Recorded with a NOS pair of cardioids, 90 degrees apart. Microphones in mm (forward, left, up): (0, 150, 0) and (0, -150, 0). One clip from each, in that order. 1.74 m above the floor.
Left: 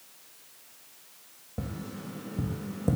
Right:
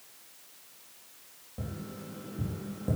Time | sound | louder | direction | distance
1.6 | tapping | left 3 dB | 50° left | 3.5 m